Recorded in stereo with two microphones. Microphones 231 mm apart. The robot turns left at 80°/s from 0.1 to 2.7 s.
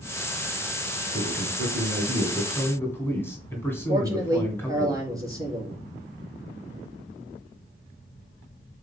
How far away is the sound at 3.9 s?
About 5.5 m.